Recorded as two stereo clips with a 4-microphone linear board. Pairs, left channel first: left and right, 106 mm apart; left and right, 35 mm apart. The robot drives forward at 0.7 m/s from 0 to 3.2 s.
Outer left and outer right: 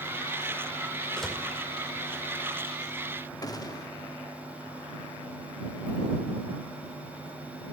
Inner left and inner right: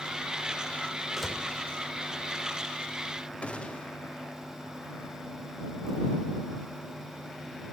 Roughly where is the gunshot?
Left.